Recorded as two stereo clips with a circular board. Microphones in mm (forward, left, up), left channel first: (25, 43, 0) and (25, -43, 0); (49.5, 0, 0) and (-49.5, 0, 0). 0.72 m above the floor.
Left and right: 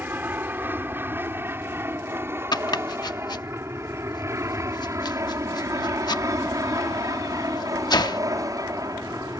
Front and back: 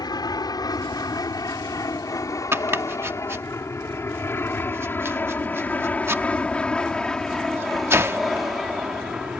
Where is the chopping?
115° left.